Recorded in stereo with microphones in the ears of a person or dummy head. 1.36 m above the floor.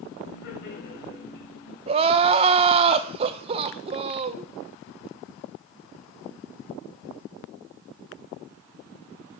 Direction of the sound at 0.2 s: 55° left (ahead or behind).